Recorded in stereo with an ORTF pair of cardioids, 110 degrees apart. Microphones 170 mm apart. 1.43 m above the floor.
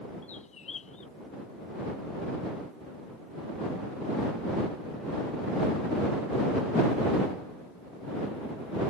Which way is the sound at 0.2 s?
45° left.